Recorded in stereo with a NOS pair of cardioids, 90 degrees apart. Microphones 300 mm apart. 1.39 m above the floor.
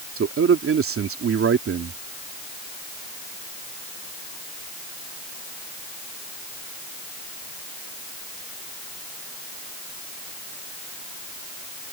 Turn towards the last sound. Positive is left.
turn(degrees=-45)